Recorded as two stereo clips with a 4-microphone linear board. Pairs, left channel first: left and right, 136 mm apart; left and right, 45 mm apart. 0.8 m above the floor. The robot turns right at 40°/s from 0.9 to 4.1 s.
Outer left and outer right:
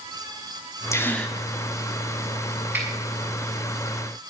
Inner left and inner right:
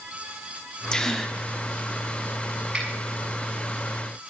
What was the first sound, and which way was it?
A gasp, 20° left (ahead or behind).